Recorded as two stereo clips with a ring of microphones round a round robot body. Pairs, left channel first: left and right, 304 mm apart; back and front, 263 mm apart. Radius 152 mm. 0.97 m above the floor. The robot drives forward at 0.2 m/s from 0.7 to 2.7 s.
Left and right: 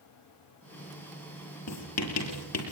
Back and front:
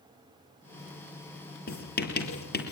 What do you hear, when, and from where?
1.7 s writing: 130° left, 7 m